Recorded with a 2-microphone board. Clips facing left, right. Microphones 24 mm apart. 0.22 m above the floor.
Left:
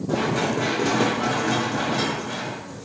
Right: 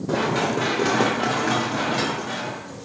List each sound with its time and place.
0.1 s running footsteps: 60° right (ahead or behind), 3 m; by 2.9 s 85° right, 3 m